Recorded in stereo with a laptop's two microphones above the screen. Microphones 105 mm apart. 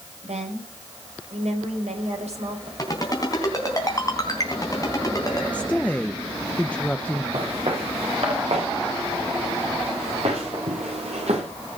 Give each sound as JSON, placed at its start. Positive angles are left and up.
{"t": 0.2, "sound": "a woman speaking", "side_deg": -80, "distance_m": 5.0}
{"t": 2.8, "sound": "a ringtone", "side_deg": 35, "distance_m": 3.5}
{"t": 5.5, "sound": "a woman speaking", "side_deg": 15, "distance_m": 0.7}
{"t": 7.3, "sound": "footsteps", "side_deg": -65, "distance_m": 5.5}